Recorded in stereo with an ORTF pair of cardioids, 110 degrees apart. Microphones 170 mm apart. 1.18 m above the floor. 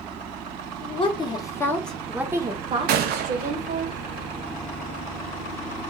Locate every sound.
0.8 s a woman speaking: 35° left, 1.1 m; by 3.9 s 55° right, 1.2 m
2.9 s a gunshot: 65° right, 0.6 m